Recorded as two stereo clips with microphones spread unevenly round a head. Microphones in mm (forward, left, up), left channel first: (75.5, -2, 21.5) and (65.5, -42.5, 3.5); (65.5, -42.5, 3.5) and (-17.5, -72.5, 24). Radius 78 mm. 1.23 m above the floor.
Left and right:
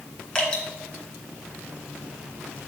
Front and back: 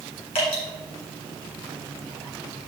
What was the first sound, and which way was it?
Dripping, 20° left.